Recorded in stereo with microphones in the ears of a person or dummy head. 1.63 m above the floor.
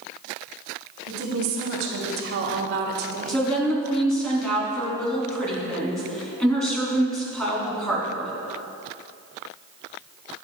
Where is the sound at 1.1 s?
75° right (ahead or behind), 2.5 m; by 3.5 s 35° right (ahead or behind), 0.7 m.